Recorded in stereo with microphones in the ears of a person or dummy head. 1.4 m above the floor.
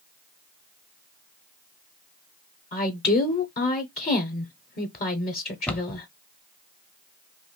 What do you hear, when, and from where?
2.7 s a woman speaking: 35° left (ahead or behind), 0.7 m
5.7 s a cupboard door: 5° left (ahead or behind), 0.6 m